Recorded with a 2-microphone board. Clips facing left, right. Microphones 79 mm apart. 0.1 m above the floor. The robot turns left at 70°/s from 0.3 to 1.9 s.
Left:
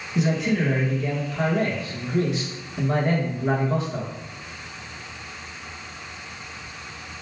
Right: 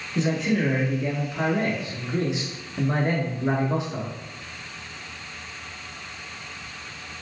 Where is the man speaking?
5° left (ahead or behind), 1.1 m; by 4.1 s 20° right (ahead or behind), 1.1 m.